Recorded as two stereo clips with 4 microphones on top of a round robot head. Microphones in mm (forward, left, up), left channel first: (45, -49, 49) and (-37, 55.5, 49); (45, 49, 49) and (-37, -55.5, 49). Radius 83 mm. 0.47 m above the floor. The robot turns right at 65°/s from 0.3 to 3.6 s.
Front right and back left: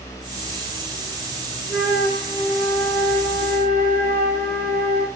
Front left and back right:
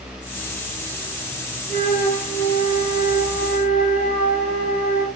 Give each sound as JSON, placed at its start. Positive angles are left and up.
{"t": 1.7, "sound": "a flute", "azimuth_deg": -25, "distance_m": 1.2}